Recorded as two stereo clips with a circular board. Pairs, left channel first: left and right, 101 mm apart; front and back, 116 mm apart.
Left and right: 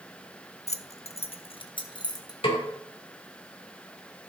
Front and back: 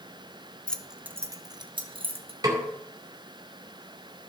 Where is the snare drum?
120° left, 2.5 m.